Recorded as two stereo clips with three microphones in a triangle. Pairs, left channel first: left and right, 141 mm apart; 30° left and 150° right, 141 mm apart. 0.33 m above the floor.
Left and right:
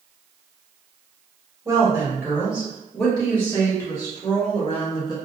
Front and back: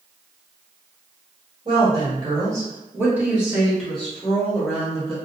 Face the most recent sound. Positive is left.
turn(degrees=90)